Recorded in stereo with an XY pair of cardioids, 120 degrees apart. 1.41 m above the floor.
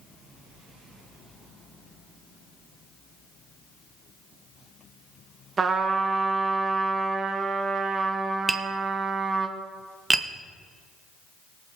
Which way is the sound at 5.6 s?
35° right.